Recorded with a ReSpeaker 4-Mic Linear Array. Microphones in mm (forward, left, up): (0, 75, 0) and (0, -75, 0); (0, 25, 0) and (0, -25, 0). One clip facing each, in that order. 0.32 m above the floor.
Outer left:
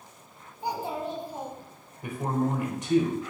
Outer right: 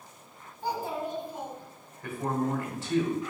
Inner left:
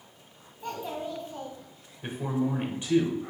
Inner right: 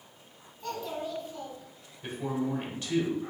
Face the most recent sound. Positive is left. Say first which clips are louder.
# outer left 2 dB, inner left 2 dB
turn(degrees=20)  # may be behind; listen again after turning